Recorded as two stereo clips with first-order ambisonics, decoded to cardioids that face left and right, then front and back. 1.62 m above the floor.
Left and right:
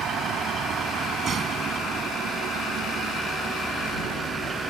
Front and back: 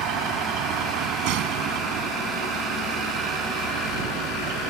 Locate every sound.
0.0 s a vehicle: 150° right; by 4.7 s 170° right